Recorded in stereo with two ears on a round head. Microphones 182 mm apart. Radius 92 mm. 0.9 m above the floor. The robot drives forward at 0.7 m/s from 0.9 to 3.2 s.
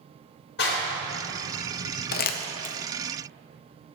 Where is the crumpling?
50° left (ahead or behind), 0.6 m; by 2.8 s 35° left (ahead or behind), 0.7 m.